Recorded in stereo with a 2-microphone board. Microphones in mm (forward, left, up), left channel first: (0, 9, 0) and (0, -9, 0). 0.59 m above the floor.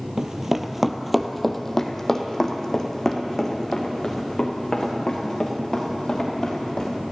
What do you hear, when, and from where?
0.2 s running footsteps: 35° right (ahead or behind), 0.7 m; by 6.9 s 40° left (ahead or behind), 4 m